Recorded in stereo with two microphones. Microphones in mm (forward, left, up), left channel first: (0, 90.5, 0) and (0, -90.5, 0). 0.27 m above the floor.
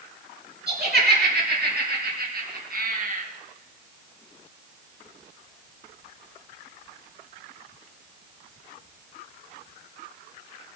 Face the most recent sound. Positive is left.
turn(degrees=-50)  # may be behind; listen again after turning